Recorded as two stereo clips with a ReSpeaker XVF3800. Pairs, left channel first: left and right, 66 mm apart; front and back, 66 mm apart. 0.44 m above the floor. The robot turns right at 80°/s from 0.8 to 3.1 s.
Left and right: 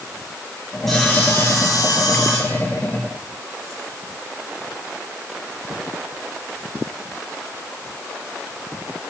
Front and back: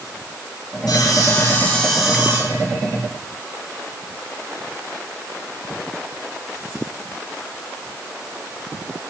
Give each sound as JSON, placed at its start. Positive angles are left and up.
{"t": 0.9, "sound": "sawing", "azimuth_deg": 5, "distance_m": 3.5}